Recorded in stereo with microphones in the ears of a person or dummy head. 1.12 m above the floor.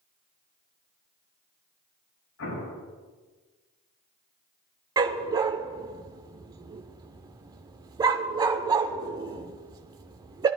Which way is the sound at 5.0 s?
20° right (ahead or behind).